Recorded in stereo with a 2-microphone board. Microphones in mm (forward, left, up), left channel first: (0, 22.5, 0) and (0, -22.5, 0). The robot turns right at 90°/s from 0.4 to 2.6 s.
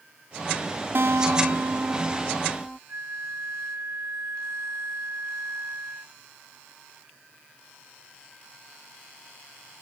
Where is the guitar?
125° right; by 2.8 s 25° left.